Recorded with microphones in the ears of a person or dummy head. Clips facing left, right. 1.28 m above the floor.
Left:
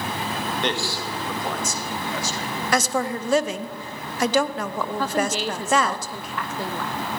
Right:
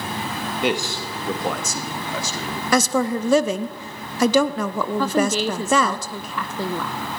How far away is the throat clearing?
No throat clearing in this recording.